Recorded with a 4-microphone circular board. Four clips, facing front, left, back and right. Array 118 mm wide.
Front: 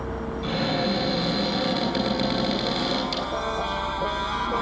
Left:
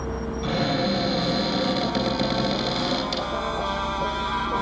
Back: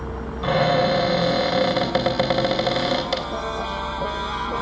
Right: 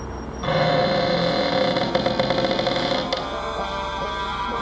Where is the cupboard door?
125° right, 2.5 m.